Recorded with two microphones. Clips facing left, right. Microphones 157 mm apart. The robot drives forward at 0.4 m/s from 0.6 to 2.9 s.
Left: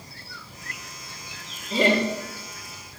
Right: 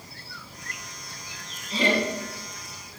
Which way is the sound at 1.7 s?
50° left (ahead or behind).